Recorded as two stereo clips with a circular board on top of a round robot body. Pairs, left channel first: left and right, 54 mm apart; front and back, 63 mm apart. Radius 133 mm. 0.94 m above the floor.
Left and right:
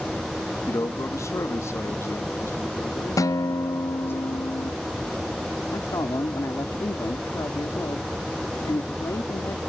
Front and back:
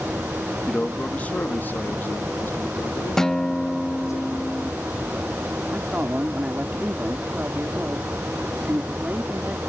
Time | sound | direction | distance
0.7 | a man speaking | 75° left | ?
3.2 | a guitar | 85° left | ?
5.7 | a man speaking | 115° left | ?